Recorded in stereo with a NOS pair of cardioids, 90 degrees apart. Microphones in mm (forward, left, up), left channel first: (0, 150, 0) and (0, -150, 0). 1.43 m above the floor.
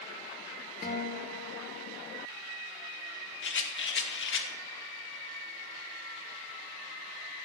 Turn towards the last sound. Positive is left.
turn(degrees=40)